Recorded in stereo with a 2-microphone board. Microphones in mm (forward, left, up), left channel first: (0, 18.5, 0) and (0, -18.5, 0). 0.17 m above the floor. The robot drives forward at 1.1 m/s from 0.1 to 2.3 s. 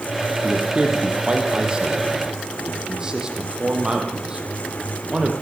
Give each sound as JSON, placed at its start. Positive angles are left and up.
{"t": 0.4, "sound": "a man speaking", "side_deg": -35, "distance_m": 4.5}